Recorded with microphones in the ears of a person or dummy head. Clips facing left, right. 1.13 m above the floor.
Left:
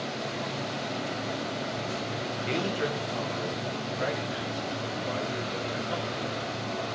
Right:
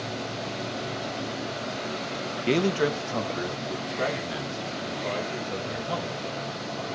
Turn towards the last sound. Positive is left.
turn(degrees=-70)  # may be behind; listen again after turning